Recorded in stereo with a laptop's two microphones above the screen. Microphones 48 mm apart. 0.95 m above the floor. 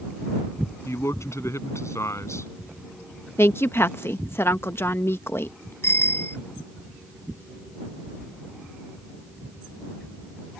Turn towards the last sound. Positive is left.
turn(degrees=60)  # may be behind; listen again after turning